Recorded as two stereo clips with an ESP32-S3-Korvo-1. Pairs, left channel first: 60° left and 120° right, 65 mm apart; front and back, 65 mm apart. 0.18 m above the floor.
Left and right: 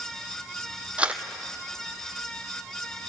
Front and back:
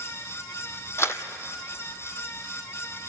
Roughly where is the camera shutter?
Ahead right.